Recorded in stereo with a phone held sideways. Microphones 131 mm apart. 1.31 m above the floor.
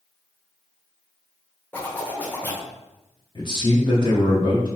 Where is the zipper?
15° left (ahead or behind), 0.7 m.